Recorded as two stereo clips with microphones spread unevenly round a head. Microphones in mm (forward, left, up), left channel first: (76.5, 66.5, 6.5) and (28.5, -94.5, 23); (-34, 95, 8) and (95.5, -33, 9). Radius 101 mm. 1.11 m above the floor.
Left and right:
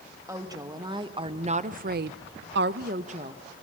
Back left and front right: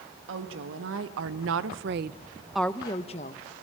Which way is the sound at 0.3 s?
35° right.